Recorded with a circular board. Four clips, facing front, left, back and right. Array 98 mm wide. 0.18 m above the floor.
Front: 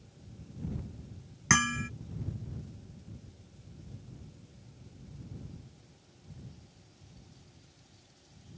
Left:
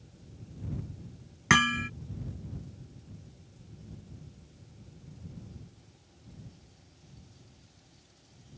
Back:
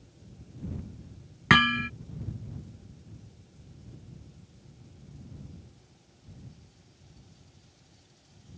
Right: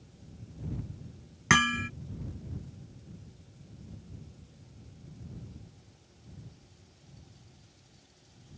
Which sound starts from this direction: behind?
Hammering, at 1.5 s.